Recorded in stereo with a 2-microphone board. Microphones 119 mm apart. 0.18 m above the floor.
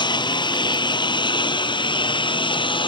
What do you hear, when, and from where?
0.0 s a lawn mower: 40° left (ahead or behind); by 2.9 s 45° left (ahead or behind)